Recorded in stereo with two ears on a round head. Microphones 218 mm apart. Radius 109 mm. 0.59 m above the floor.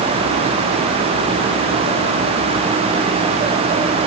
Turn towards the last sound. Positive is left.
No sound to turn to.